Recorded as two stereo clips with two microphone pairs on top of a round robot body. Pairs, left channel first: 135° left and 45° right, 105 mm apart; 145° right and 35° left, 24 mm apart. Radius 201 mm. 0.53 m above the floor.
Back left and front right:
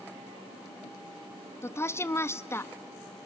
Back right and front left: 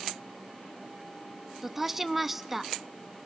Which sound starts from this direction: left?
A woman speaking, at 1.6 s.